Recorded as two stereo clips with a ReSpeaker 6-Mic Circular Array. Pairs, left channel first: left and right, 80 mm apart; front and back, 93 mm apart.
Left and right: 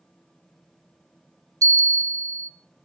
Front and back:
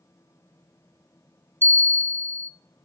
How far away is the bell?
About 0.8 m.